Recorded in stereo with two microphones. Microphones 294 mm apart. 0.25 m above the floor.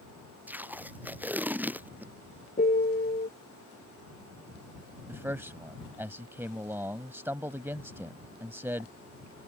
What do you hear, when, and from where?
0.5 s tape being pulled: 5° right (ahead or behind)
2.6 s a piano: 30° left (ahead or behind)
5.1 s a man speaking: 10° right (ahead or behind)